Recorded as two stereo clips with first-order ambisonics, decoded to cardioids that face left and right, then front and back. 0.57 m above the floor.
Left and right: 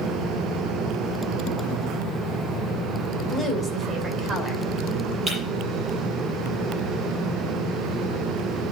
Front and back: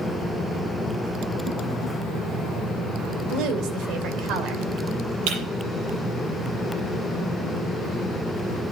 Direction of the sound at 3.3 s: 160° right.